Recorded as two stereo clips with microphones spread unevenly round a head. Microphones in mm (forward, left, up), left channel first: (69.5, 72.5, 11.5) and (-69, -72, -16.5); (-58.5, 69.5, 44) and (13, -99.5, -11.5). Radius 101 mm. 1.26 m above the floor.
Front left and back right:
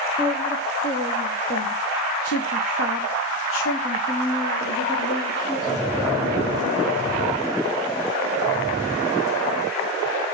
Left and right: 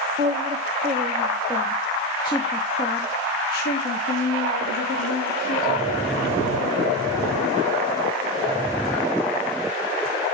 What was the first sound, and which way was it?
A woman speaking, 5° right.